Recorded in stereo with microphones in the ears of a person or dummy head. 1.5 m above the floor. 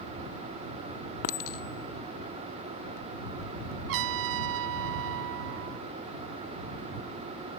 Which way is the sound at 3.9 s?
65° right (ahead or behind).